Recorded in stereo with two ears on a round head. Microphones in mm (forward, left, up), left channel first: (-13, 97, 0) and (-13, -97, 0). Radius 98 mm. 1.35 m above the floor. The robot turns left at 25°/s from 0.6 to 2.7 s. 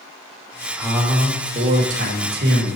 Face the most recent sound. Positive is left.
turn(degrees=-55)